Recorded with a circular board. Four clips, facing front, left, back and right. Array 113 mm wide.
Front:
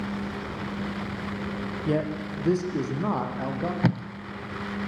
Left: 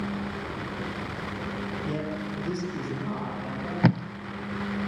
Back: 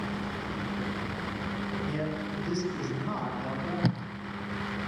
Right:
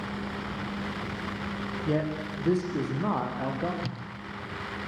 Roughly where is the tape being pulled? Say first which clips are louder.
Left 14 dB, front 5 dB; left.